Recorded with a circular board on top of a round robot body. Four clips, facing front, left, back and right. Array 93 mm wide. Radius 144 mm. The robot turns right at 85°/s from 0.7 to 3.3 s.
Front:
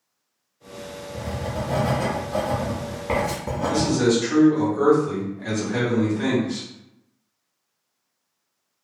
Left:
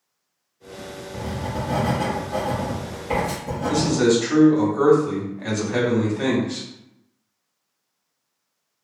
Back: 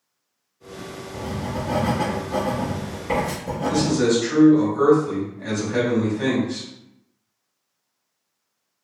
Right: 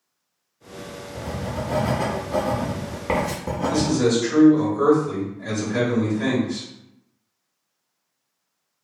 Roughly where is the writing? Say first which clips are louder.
Left 1 dB, back 1 dB; behind left.